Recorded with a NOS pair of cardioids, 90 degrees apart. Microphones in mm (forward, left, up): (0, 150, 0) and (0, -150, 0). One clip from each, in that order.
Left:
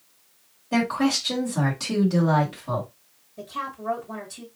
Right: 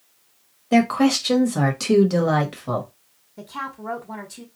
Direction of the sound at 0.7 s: 45° right.